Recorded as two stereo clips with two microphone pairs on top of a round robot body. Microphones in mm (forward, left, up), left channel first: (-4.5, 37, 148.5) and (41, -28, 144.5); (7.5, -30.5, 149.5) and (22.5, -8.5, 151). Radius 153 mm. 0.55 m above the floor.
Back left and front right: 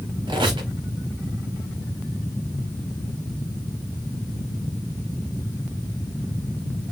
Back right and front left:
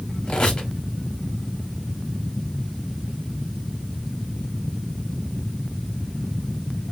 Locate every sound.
0.3 s a squeak: 75° right, 1.1 m